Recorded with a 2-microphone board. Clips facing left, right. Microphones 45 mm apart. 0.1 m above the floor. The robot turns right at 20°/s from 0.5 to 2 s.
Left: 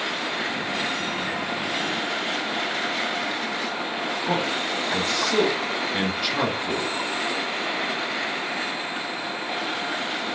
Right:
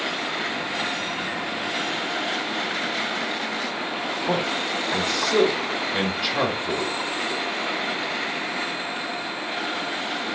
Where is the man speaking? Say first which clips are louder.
Right 1 dB; centre (ahead or behind), 1.2 m.